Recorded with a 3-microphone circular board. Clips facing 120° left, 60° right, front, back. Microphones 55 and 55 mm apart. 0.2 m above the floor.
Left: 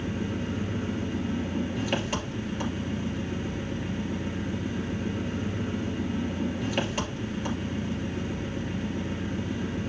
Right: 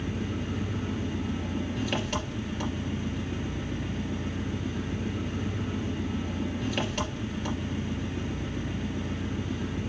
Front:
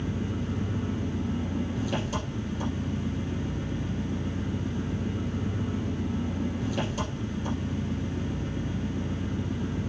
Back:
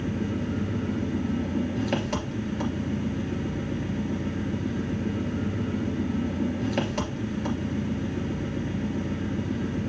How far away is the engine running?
About 2.5 m.